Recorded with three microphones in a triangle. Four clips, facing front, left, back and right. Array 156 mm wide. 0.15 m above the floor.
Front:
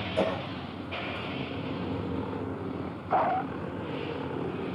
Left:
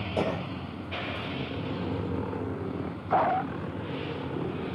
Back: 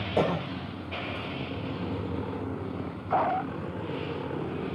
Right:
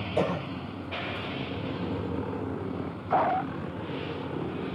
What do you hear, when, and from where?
0.2 s a cough: 170° left, 6 m